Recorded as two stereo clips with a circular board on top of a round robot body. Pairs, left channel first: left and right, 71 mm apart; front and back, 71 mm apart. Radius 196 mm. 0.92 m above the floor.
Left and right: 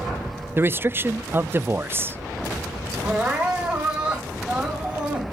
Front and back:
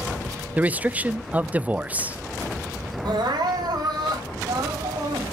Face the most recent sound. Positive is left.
turn(degrees=-165)